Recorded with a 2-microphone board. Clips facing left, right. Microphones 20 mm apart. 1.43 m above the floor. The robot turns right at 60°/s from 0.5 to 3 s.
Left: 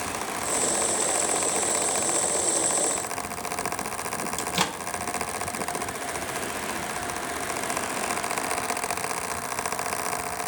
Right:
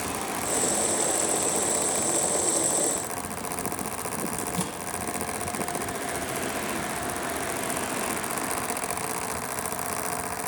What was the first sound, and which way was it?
A microwave, 55° left (ahead or behind).